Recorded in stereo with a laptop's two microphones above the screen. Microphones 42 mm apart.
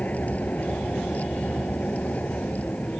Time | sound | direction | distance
0.0 | a vehicle | 35° left (ahead or behind) | ?